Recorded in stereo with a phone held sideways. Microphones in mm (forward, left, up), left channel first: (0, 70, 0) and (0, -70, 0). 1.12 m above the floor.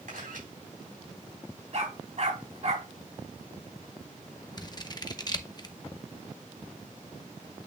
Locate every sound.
0.1 s a camera shutter: 80° right, 4 m
1.7 s a dog barking: 55° right (ahead or behind), 4 m
4.6 s scissors: 30° left (ahead or behind), 0.9 m